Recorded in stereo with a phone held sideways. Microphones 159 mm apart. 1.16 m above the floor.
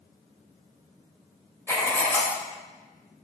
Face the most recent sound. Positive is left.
turn(degrees=15)  # may be behind; listen again after turning